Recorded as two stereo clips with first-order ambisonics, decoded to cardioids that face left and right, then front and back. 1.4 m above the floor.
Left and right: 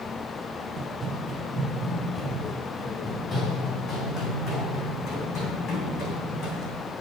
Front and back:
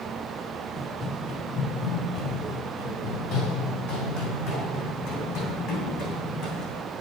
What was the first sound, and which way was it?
Running footsteps, 60° right.